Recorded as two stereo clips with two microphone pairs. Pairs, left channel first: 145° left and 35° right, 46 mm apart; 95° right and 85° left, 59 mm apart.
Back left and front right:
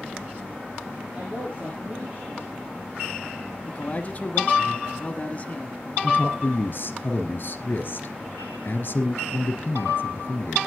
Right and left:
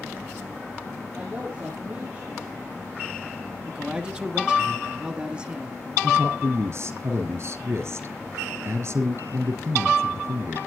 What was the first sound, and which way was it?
A man speaking, 25° left.